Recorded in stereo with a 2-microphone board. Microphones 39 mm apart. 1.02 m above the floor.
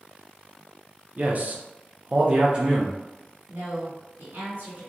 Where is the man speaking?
35° right (ahead or behind), 0.6 m; by 3.0 s 20° right (ahead or behind), 0.8 m.